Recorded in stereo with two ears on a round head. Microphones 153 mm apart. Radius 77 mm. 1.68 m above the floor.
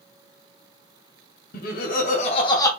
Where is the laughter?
55° left (ahead or behind), 0.9 m; by 2.7 s 20° left (ahead or behind), 0.8 m.